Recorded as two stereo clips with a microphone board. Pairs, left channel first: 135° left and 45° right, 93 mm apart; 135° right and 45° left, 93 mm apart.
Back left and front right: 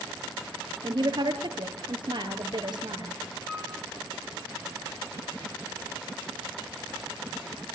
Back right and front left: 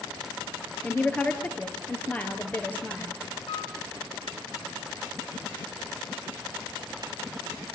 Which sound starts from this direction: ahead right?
A woman speaking, at 0.8 s.